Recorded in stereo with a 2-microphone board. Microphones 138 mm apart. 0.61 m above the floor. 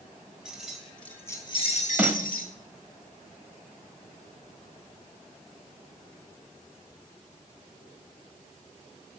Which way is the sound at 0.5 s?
5° right (ahead or behind).